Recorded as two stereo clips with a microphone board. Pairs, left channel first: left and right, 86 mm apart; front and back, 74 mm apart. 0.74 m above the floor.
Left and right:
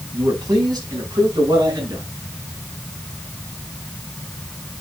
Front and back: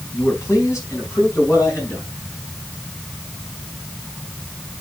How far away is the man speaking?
About 4.5 m.